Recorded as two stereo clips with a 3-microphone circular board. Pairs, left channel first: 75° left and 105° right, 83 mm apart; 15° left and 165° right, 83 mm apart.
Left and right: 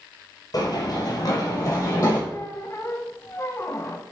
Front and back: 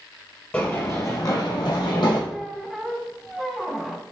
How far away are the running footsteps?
About 2 m.